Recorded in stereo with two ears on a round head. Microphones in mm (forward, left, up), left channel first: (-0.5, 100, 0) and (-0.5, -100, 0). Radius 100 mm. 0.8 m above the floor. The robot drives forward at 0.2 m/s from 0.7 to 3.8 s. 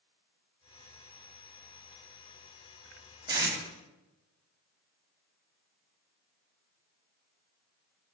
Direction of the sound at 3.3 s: 20° right (ahead or behind).